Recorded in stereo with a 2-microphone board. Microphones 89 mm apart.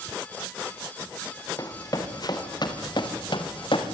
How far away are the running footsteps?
About 4.5 m.